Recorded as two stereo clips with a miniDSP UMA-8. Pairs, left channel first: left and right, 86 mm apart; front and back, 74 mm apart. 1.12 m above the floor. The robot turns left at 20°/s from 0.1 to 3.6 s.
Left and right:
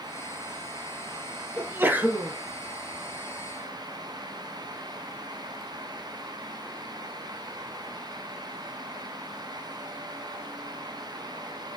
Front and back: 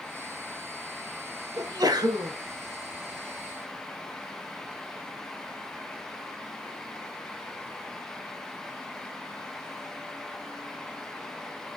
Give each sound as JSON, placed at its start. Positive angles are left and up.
{"t": 1.6, "sound": "a sneeze", "azimuth_deg": -150, "distance_m": 1.1}